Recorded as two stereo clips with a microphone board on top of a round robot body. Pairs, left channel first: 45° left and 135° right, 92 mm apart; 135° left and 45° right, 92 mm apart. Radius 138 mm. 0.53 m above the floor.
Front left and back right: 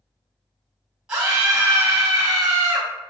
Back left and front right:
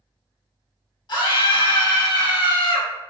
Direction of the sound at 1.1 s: 145° left.